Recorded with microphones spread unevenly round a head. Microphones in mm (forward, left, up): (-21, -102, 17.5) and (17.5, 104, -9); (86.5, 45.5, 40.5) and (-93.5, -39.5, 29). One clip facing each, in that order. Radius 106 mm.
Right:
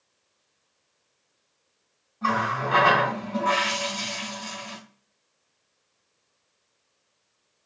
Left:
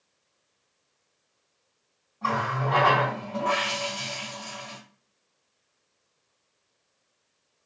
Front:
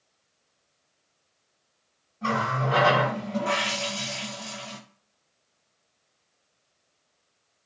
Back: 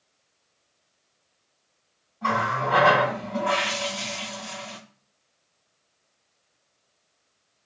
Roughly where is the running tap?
Ahead right.